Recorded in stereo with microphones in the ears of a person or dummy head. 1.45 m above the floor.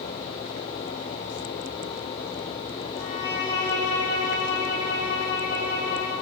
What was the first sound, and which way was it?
A violin, 15° left (ahead or behind).